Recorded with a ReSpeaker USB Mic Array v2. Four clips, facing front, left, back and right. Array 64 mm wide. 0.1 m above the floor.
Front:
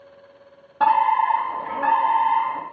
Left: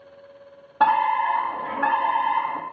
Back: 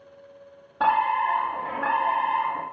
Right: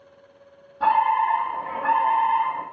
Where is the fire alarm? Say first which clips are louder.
Even, front 4 dB; 85° left, 6 m.